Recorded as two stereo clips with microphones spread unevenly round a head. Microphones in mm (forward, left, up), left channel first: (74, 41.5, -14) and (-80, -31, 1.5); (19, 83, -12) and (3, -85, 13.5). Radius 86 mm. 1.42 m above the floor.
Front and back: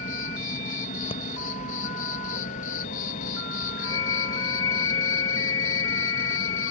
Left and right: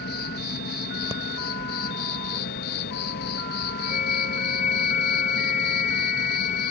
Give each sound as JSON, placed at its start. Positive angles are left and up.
{"t": 0.0, "sound": "an insect", "azimuth_deg": 65}
{"t": 1.1, "sound": "breathing", "azimuth_deg": -35}
{"t": 3.8, "sound": "a flute", "azimuth_deg": 40}